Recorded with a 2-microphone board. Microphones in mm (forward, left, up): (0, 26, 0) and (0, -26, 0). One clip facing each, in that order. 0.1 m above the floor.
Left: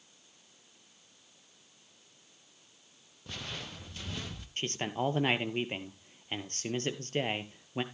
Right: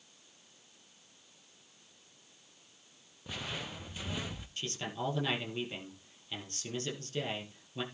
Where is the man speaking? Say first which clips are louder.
Left 5 dB; 45° left (ahead or behind), 1.9 m.